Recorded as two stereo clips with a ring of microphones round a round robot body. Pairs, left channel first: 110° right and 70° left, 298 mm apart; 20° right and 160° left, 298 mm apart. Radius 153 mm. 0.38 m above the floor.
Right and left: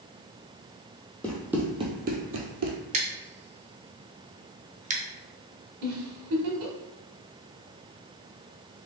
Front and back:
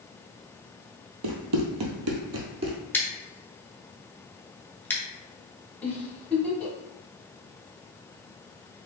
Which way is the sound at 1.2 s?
160° left.